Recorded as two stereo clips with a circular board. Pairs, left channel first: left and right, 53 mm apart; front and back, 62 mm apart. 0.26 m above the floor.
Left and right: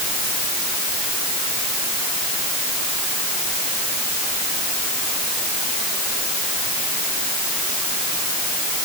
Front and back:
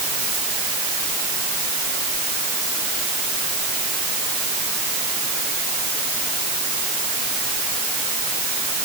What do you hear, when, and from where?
Only background noise.